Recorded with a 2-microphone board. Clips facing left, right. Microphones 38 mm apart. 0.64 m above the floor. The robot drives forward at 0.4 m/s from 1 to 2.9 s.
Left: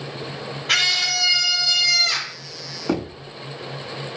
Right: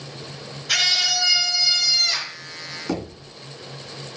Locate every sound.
0.7 s a scream: 45° left (ahead or behind), 2 m; by 2.4 s 55° left (ahead or behind), 1.9 m
2.9 s knocking: 30° left (ahead or behind), 1.3 m